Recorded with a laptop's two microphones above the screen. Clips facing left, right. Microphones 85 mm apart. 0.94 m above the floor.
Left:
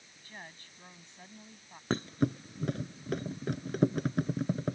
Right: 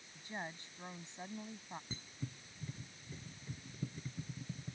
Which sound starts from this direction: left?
A thud, at 1.9 s.